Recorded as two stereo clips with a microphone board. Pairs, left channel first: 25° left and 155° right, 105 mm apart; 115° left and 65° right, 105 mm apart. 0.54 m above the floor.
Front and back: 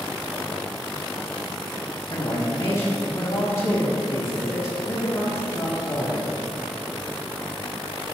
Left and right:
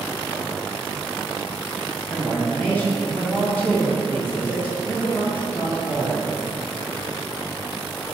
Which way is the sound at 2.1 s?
45° left.